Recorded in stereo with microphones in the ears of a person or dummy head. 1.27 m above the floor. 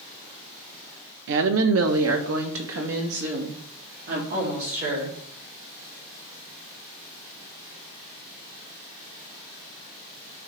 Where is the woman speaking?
65° right (ahead or behind), 1.0 m; by 5.2 s 45° right (ahead or behind), 4 m.